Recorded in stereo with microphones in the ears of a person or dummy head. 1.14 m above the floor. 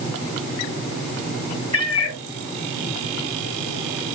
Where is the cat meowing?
35° left (ahead or behind), 2.5 m.